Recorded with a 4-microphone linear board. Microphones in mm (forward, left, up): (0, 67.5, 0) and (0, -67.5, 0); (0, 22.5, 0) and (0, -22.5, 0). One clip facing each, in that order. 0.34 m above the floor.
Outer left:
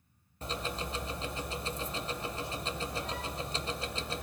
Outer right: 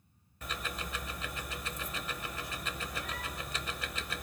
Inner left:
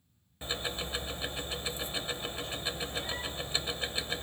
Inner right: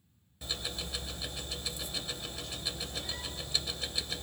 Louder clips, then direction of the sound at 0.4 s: Outer left 4 dB, inner left 3 dB; 30° left (ahead or behind).